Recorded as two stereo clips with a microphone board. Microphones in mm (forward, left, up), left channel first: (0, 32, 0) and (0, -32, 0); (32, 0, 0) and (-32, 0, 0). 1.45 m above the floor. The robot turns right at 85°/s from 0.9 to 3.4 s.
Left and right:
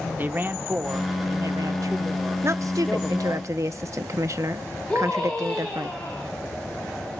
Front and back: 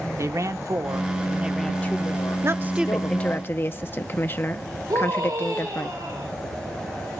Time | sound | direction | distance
0.2 | a man speaking | 145° right | 1.4 m
2.4 | a woman speaking | 135° right | 1.1 m
4.9 | a scream | 165° left | 10 m